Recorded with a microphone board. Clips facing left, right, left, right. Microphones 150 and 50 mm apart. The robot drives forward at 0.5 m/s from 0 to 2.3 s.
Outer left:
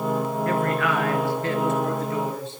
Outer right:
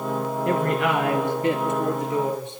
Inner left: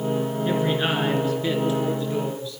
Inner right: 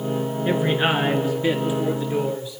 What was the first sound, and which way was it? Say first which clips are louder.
A man speaking: outer right 3 dB, inner right 4 dB; 20° right (ahead or behind).